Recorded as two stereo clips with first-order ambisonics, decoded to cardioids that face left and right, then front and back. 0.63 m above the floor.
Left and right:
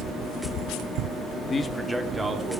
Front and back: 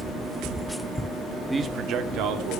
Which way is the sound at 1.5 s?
110° left.